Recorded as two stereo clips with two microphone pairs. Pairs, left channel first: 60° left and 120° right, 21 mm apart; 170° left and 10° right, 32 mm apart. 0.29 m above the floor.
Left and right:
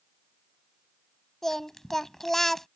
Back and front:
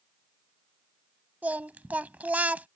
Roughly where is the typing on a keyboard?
I don't hear typing on a keyboard.